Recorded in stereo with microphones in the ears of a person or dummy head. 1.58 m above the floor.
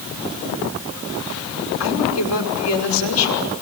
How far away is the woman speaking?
About 5.5 m.